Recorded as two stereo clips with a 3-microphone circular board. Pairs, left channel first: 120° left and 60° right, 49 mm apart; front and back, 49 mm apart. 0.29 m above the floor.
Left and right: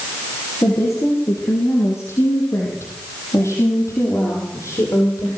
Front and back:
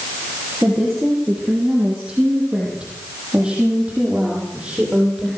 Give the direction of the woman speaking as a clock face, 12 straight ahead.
9 o'clock.